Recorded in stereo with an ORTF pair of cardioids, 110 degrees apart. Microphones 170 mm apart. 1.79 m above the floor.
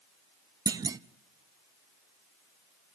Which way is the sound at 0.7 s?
25° right.